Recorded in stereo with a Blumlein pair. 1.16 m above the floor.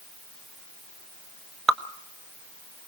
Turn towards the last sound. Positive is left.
turn(degrees=-15)